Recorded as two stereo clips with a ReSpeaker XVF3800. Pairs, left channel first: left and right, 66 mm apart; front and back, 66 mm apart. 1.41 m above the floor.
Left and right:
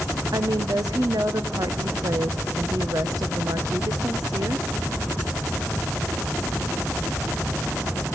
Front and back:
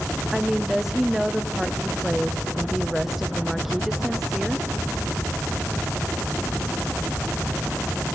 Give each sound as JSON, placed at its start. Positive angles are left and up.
{"t": 0.3, "sound": "a woman speaking", "azimuth_deg": -95, "distance_m": 0.8}